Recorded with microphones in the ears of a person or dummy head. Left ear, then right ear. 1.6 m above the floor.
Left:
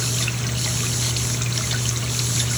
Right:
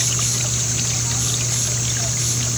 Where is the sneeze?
No sneeze in this recording.